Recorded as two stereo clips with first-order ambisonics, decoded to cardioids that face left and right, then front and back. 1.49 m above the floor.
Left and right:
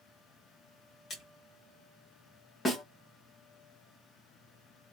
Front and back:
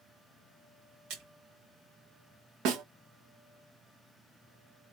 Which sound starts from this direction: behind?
A snare drum, at 2.6 s.